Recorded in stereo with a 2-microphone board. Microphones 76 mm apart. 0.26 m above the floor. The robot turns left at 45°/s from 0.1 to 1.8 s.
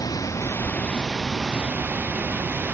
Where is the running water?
50° left; by 2.8 s 25° right.